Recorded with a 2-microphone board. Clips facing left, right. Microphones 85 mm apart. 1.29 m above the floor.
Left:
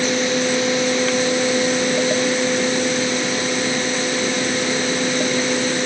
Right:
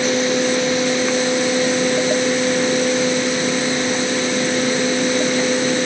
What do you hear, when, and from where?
Only background noise.